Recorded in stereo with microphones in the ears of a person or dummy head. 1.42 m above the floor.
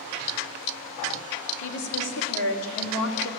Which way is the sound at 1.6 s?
65° left (ahead or behind).